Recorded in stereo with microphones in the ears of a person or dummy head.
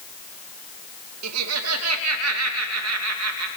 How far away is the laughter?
About 2.5 m.